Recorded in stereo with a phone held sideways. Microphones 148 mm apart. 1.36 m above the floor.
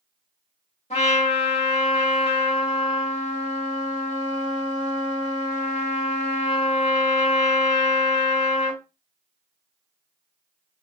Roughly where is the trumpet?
Left.